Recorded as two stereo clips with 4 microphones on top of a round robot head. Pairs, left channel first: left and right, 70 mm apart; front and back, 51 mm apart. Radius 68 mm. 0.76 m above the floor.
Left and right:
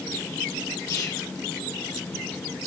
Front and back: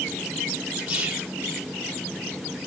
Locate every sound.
0.9 s whispering: 130° left, 0.6 m